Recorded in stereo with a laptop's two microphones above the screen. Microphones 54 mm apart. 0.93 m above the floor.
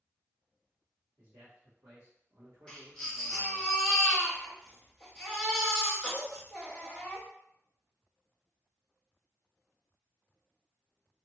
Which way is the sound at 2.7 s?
15° left (ahead or behind).